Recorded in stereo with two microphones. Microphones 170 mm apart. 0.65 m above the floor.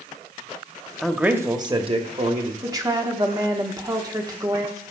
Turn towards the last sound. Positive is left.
turn(degrees=-25)  # may be behind; listen again after turning